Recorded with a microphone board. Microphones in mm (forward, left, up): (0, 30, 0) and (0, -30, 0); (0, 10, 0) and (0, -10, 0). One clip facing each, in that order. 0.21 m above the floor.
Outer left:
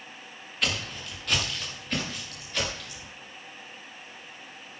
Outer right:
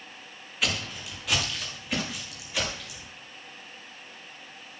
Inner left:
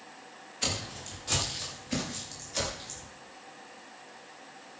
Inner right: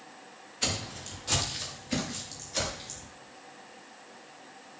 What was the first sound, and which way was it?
Footsteps, 5° right (ahead or behind).